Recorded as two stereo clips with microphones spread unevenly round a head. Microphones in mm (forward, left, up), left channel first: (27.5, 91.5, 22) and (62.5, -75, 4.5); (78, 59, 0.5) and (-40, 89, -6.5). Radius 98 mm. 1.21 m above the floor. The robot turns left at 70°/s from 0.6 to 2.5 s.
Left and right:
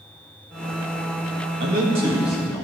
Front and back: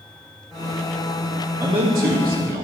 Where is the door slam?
I don't hear a door slam.